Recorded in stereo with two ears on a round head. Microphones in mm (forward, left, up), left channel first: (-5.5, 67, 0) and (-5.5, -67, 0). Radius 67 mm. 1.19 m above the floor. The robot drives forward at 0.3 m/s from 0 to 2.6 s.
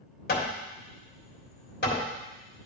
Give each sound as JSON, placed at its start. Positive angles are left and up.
{"t": 0.3, "sound": "hammering", "side_deg": 65, "distance_m": 1.9}